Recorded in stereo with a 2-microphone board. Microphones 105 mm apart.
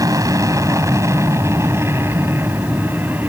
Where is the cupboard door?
I don't hear a cupboard door.